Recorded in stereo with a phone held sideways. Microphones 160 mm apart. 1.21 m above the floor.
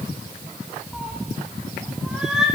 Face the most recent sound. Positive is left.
turn(degrees=-5)  # may be behind; listen again after turning